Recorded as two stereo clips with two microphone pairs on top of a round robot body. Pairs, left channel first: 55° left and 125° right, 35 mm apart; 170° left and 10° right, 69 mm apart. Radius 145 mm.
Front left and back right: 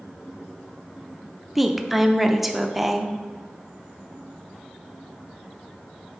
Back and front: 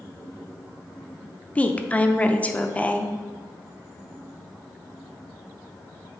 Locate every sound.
1.6 s a woman speaking: 130° left, 0.8 m